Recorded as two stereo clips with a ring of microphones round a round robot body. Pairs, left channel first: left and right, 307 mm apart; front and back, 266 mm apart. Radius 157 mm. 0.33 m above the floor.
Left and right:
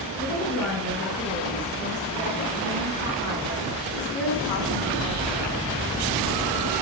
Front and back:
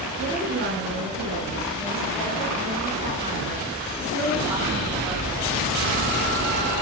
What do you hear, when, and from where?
0.2 s a woman speaking: 140° left, 5.5 m; by 5.6 s 85° left, 3.5 m